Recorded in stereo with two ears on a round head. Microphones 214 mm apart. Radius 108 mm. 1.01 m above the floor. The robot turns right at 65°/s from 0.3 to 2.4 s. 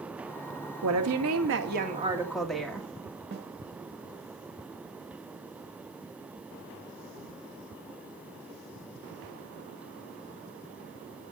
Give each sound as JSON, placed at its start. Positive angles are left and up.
{"t": 0.8, "sound": "a woman speaking", "azimuth_deg": -100, "distance_m": 1.6}
{"t": 3.3, "sound": "a snare drum", "side_deg": -45, "distance_m": 1.8}